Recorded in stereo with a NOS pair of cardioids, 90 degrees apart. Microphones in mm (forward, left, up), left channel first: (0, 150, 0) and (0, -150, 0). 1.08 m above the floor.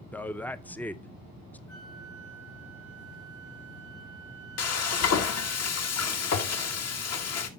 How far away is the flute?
About 2.5 m.